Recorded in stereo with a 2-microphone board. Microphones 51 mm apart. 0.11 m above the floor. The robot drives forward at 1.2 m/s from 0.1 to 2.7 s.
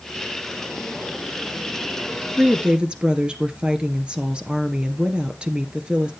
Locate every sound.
2.3 s a woman speaking: 25° right (ahead or behind), 1.2 m; by 6.1 s 20° right (ahead or behind), 1.4 m